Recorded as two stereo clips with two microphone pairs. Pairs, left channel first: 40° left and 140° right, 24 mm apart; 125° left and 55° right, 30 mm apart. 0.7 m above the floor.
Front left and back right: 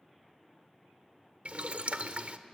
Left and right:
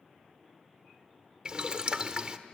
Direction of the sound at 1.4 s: 115° right.